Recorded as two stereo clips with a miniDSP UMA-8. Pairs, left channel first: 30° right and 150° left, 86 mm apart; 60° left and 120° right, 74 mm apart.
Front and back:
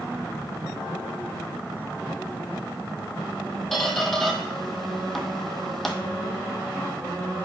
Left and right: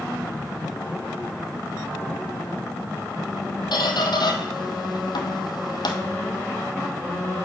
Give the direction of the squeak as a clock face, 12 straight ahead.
10 o'clock.